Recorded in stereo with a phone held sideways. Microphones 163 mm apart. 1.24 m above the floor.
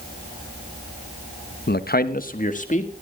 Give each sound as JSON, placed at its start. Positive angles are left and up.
{"t": 1.7, "sound": "a man speaking", "side_deg": 80, "distance_m": 0.8}